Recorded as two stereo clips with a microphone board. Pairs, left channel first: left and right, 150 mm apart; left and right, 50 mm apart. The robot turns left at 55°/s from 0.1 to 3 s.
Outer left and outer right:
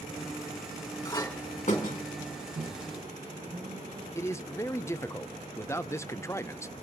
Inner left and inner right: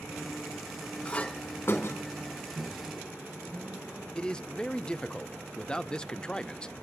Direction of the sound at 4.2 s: 20° left (ahead or behind).